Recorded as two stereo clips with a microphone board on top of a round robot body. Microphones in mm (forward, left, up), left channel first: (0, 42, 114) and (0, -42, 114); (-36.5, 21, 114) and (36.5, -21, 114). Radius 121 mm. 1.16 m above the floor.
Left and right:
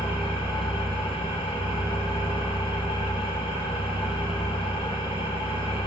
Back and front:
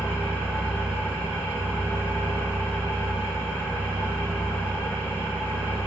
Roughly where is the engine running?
Left.